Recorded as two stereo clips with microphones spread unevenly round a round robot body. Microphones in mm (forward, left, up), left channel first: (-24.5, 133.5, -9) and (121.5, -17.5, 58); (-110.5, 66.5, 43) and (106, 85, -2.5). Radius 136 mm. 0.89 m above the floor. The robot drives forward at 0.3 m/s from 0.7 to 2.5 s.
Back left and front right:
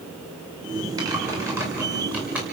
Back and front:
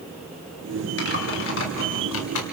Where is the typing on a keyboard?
125° right, 2 m; by 2.4 s 130° right, 2.5 m.